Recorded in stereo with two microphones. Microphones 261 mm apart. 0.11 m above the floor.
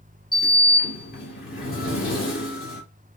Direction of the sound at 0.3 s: 35° left (ahead or behind).